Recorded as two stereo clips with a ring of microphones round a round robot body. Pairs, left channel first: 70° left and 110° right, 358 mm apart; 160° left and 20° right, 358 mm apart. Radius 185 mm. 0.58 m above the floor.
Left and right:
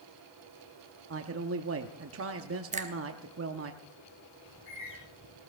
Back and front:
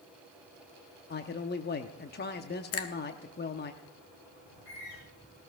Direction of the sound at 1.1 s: 150° right.